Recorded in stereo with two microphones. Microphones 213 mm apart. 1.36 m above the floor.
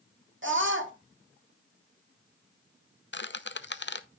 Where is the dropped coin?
No dropped coin in this recording.